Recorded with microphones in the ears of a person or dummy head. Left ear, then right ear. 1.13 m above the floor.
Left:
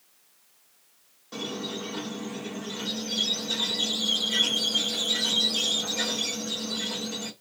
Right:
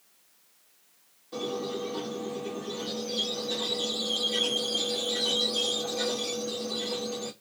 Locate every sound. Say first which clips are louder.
1.3 s a squeak: right 1 dB; 50° left (ahead or behind), 0.9 m